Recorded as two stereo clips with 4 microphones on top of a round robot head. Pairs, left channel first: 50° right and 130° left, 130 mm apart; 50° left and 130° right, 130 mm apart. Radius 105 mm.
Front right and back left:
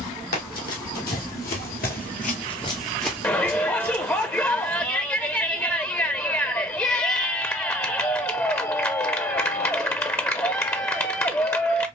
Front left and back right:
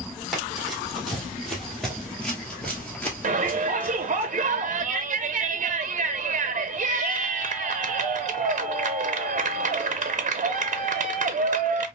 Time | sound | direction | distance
0.3 | running footsteps | 40° right | 2 m
3.2 | a shout | 115° right | 0.7 m